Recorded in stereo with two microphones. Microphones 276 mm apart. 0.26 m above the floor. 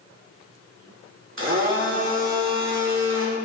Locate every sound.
1.4 s a blender: 50° right (ahead or behind), 3 m